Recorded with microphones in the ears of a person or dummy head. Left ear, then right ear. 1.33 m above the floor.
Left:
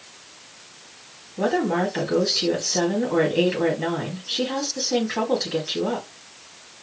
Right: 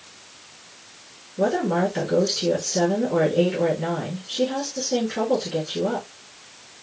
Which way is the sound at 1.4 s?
55° left (ahead or behind).